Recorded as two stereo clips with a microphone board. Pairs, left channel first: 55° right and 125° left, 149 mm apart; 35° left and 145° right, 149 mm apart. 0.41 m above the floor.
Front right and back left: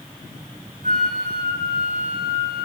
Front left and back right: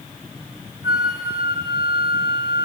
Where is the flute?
155° left, 3.5 m.